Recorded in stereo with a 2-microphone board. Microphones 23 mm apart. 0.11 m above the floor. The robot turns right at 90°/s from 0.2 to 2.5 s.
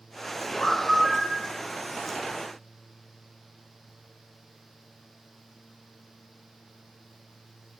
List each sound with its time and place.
0.6 s a bird: 110° left, 3 m; by 1.4 s 175° right, 3 m